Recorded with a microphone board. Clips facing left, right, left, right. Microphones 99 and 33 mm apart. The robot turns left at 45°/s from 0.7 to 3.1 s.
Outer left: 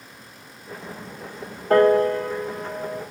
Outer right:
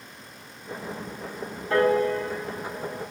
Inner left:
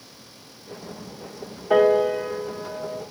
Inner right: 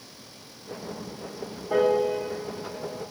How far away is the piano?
About 1.2 m.